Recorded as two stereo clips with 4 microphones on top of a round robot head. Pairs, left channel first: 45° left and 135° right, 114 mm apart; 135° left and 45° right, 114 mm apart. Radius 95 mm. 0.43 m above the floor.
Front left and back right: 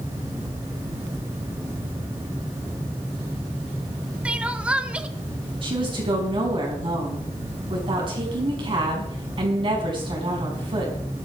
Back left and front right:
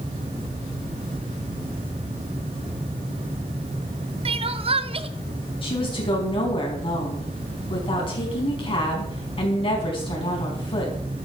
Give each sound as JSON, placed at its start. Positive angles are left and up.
{"t": 4.2, "sound": "crying", "azimuth_deg": -60, "distance_m": 0.8}
{"t": 5.6, "sound": "a woman speaking", "azimuth_deg": 180, "distance_m": 4.5}